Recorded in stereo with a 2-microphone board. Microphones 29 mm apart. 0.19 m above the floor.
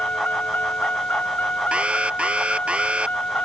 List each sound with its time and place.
0.0 s a vehicle: 85° left
1.7 s an alarm: 40° right (ahead or behind)